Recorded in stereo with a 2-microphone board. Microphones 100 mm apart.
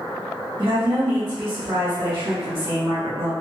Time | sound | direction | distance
0.6 | a woman speaking | 65° right (ahead or behind) | 1.5 m